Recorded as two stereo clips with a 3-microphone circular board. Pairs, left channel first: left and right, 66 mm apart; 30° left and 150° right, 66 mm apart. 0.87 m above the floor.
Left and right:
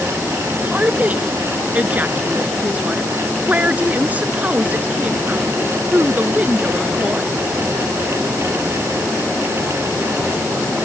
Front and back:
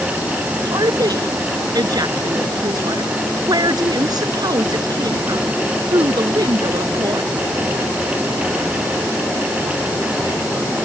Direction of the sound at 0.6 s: 155° right.